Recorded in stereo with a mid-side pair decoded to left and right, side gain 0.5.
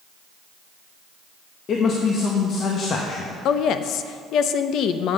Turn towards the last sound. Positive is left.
turn(degrees=65)